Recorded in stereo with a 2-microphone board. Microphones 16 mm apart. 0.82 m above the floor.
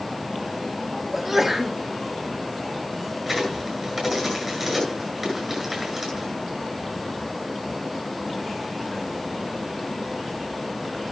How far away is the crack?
About 9.5 m.